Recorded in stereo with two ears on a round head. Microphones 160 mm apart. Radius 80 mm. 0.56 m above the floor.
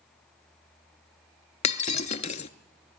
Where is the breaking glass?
40° left (ahead or behind), 0.7 m.